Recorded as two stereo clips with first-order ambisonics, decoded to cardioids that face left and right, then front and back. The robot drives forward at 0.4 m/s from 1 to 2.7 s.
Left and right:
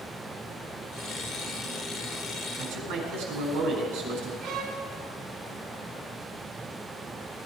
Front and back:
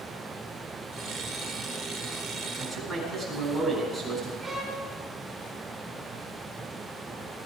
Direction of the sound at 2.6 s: 80° right.